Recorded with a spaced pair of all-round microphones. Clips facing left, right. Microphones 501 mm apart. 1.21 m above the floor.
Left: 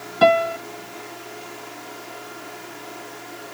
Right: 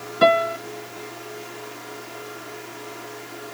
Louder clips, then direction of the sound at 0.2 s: Left 1 dB; 10° left (ahead or behind).